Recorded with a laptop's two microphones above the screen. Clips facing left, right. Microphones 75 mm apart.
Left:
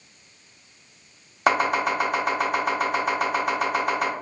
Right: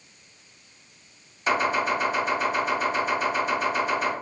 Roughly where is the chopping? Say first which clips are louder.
Left 2 dB; left.